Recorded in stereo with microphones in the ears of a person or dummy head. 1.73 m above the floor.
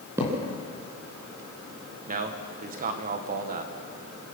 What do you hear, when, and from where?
0.2 s a thud: 20° right (ahead or behind), 4.5 m
2.1 s a man speaking: 40° right (ahead or behind), 1.6 m